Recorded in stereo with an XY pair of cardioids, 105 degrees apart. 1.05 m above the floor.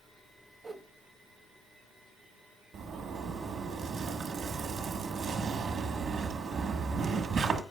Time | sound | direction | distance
0.6 | a whoosh | 35° right | 0.6 m
2.7 | a zipper | 60° right | 1.2 m